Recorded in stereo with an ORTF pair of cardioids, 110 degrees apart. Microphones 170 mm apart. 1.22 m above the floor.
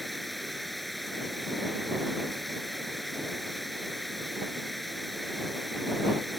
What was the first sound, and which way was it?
Running water, straight ahead.